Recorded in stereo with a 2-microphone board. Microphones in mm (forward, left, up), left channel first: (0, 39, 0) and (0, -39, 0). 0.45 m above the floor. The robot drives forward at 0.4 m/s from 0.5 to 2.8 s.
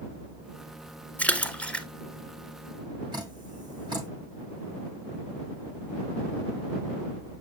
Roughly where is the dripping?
Right.